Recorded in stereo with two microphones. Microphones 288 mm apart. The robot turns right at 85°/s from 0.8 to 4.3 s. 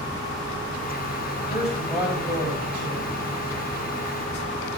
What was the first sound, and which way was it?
A man speaking, 140° left.